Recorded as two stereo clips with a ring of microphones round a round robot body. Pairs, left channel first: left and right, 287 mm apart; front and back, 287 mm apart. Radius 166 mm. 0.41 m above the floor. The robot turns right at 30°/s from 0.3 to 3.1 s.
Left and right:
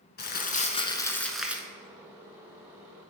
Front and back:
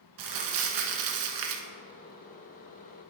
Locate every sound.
0.2 s crumpling: 150° left, 1.1 m; by 1.7 s 170° right, 1.1 m